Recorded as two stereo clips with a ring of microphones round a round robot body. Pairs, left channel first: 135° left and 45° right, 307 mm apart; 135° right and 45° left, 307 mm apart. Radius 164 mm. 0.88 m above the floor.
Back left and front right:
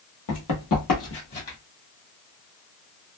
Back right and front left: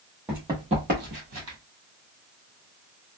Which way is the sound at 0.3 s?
130° left.